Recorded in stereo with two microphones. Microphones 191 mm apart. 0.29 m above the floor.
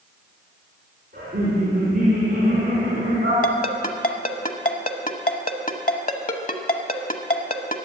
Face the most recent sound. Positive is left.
turn(degrees=45)  # may be behind; listen again after turning